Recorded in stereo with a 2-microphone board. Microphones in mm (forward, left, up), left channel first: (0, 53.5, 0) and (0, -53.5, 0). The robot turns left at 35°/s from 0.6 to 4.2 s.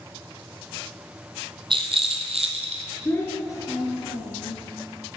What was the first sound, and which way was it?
A rattle, 55° right.